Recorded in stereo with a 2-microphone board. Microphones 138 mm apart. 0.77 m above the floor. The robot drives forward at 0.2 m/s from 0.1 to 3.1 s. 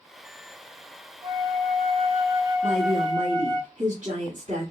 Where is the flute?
30° right (ahead or behind), 2.5 m; by 3.6 s 25° right (ahead or behind), 2.5 m.